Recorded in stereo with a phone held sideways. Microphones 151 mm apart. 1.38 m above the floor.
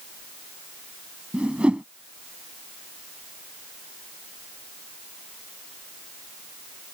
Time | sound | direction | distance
1.3 | a whoosh | 5° right (ahead or behind) | ?